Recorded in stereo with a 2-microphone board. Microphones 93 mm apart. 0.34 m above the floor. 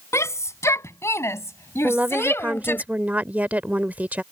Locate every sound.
0.1 s a shout: 35° left (ahead or behind); by 2.8 s 30° left (ahead or behind)
1.8 s a woman speaking: 20° right (ahead or behind)